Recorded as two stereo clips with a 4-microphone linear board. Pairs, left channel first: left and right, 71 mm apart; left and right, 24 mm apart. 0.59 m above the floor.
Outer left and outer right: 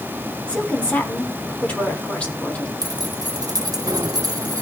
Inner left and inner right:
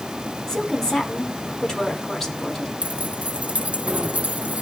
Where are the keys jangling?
65° right (ahead or behind), 0.7 m.